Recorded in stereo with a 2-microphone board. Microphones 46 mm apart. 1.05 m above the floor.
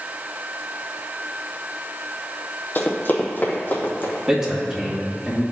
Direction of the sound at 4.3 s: 20° right (ahead or behind).